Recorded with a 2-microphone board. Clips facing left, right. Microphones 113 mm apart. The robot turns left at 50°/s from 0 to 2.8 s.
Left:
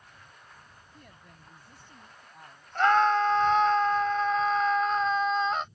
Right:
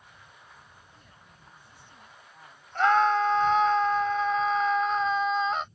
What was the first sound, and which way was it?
A woman speaking, 90° left.